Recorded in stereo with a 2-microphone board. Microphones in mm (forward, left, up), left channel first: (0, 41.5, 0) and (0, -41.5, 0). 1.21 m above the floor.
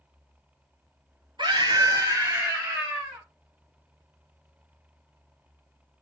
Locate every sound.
1.4 s a scream: 70° right (ahead or behind), 1.0 m; by 3.2 s 15° right (ahead or behind), 1.8 m